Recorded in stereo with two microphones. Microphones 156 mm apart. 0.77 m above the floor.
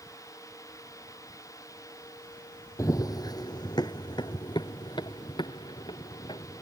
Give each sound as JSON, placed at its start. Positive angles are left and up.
{"t": 2.8, "sound": "running footsteps", "side_deg": 20}